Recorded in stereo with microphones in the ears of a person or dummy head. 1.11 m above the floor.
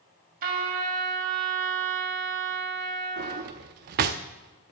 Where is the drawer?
35° right (ahead or behind), 0.6 m.